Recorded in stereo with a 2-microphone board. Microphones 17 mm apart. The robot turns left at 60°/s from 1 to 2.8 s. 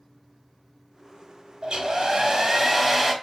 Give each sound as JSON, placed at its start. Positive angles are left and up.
{"t": 1.6, "sound": "a hair dryer", "azimuth_deg": -75, "distance_m": 1.1}